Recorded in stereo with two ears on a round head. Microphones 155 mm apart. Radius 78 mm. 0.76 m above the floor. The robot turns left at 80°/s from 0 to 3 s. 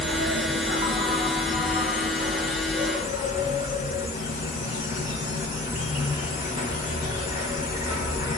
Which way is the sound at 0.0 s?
80° right.